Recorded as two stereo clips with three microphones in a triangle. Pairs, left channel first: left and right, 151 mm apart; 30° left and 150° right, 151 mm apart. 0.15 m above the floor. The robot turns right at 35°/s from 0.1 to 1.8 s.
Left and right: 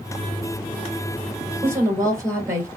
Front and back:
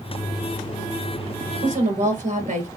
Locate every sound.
1.6 s a woman speaking: 165° right, 2 m; by 2.7 s 160° right, 2 m